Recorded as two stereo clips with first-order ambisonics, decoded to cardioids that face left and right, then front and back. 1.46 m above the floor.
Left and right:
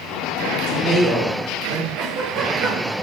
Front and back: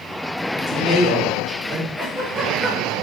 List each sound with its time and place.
0.7 s a woman speaking: 130° right, 1.7 m
2.0 s a giggle: 120° right, 1.8 m